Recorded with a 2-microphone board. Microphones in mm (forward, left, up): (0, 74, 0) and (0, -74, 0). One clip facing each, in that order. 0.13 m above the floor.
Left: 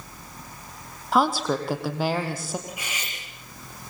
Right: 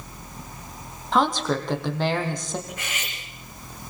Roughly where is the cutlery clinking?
Centre.